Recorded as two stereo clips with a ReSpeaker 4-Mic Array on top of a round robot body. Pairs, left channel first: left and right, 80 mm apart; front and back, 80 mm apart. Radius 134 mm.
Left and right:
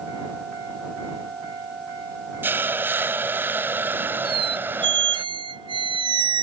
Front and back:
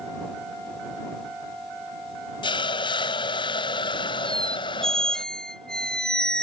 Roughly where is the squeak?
Right.